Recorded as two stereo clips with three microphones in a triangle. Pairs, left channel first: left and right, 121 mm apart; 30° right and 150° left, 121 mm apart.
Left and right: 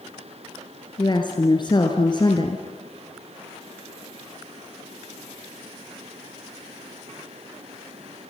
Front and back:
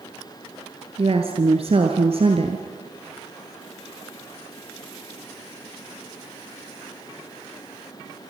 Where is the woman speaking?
130° left, 2.0 m.